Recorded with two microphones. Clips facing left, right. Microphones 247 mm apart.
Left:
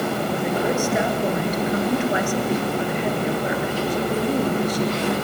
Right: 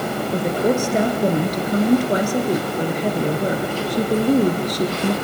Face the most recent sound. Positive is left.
turn(degrees=-40)  # may be behind; listen again after turning